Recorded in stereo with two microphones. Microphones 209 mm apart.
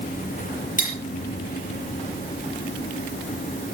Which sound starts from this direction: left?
Cutlery clinking, at 0.8 s.